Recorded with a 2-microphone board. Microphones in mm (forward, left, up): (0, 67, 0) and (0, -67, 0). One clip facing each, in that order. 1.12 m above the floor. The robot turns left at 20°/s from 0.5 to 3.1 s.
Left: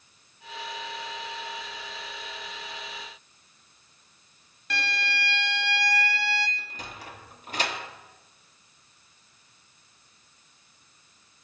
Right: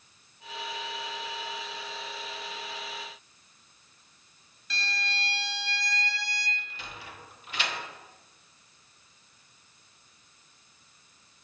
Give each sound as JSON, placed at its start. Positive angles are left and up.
{"t": 4.7, "sound": "a violin", "side_deg": 65, "distance_m": 0.5}
{"t": 6.6, "sound": "a sliding door", "side_deg": 40, "distance_m": 0.9}